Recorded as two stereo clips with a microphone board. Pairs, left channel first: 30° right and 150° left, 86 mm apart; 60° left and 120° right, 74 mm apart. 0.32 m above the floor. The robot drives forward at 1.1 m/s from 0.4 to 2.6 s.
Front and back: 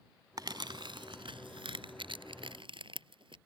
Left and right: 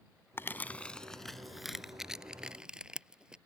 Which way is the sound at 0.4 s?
120° left.